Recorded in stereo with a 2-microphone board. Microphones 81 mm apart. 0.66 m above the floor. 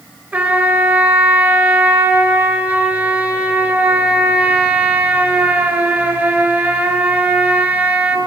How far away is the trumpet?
About 5 m.